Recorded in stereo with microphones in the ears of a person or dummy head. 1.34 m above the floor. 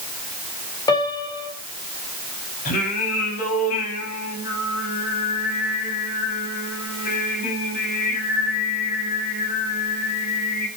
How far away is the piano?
About 2.5 m.